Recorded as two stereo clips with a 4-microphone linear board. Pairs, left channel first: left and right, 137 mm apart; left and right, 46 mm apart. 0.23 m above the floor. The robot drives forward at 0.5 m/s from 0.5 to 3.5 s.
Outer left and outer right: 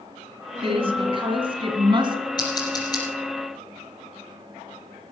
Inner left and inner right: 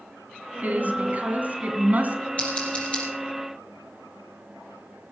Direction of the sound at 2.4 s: 30° left (ahead or behind).